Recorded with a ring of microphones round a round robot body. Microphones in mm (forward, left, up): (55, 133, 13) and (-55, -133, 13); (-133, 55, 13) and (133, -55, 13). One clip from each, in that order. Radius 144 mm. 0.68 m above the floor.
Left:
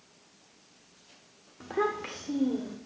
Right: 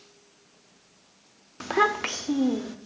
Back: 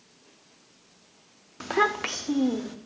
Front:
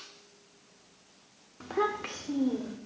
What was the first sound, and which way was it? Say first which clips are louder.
A child speaking: right 7 dB, back 6 dB; 150° right.